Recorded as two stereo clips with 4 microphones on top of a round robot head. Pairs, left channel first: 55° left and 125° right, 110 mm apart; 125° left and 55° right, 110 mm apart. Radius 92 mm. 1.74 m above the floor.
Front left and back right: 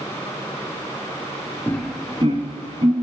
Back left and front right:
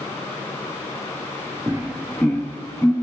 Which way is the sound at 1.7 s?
Straight ahead.